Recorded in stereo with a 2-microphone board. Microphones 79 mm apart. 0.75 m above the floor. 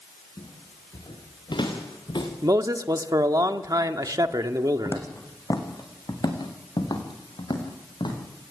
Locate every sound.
0.4 s footsteps: 85° left, 7.5 m; by 2.3 s 80° left, 4.5 m
2.4 s a man speaking: 50° right (ahead or behind), 1.5 m
4.8 s footsteps: 35° left (ahead or behind), 3 m; by 8.2 s 70° left (ahead or behind), 7 m